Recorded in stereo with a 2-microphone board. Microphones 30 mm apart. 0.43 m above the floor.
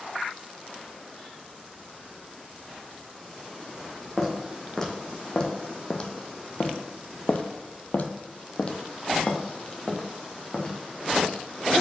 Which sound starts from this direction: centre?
Footsteps, at 4.2 s.